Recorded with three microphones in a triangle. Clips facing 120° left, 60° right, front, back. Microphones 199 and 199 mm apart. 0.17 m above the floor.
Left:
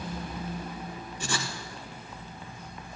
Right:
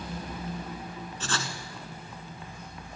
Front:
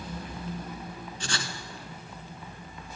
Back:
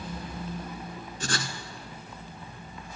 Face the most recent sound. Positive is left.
turn(degrees=-165)